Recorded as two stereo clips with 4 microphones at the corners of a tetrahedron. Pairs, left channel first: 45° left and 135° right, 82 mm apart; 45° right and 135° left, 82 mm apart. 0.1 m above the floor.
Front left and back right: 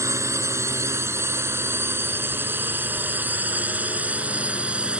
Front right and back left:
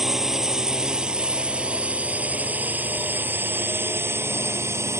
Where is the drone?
145° right; by 5.0 s 155° left.